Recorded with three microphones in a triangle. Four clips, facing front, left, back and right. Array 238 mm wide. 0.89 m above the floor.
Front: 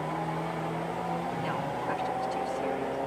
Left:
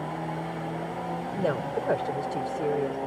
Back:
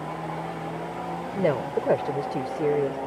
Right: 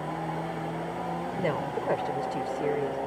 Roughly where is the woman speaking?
Behind.